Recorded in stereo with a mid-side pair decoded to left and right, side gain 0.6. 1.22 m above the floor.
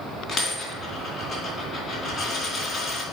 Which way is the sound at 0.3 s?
30° left.